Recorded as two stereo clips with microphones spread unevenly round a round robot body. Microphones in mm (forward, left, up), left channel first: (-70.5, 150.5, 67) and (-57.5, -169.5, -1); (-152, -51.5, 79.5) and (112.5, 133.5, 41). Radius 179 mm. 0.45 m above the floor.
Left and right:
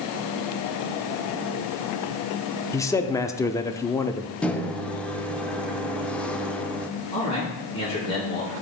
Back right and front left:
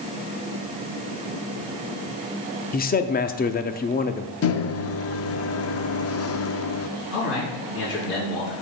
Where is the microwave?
165° right, 0.8 m.